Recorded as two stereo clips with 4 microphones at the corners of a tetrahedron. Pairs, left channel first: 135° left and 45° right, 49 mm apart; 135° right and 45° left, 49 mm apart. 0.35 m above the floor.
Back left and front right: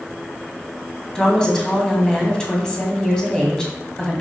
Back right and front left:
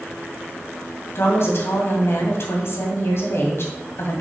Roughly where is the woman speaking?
Behind right.